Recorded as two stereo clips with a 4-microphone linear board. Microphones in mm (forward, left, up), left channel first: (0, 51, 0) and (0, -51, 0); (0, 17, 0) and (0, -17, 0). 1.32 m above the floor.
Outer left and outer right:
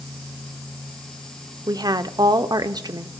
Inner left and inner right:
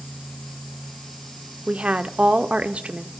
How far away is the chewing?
I don't hear chewing.